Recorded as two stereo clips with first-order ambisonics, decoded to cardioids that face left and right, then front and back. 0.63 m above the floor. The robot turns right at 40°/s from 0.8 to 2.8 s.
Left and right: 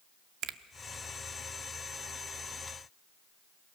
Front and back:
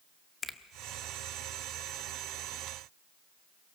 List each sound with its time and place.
0.4 s a finger snap: 70° right, 1.0 m